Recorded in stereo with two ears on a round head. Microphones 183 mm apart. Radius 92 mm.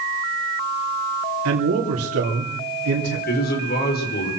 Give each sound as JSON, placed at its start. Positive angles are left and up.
{"t": 1.4, "sound": "a man speaking", "side_deg": -75, "distance_m": 3.0}
{"t": 3.3, "sound": "a man speaking", "side_deg": 50, "distance_m": 5.0}